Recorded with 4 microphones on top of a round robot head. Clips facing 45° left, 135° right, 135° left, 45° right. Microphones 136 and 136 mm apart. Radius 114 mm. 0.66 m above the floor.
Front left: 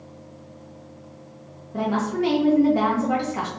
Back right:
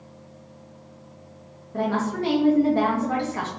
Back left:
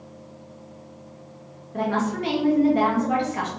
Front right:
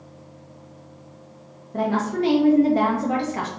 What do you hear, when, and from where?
1.7 s a woman speaking: 20° right, 0.9 m